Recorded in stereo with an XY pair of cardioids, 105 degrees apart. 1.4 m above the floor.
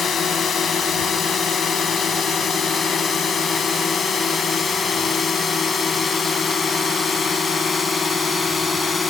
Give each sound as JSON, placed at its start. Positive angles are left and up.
{"t": 0.0, "sound": "a drone", "azimuth_deg": 50}